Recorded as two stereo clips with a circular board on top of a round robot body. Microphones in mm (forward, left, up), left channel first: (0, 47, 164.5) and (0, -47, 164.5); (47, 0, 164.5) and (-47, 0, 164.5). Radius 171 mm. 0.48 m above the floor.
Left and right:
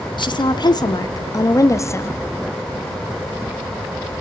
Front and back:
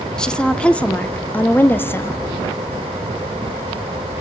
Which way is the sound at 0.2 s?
80° left.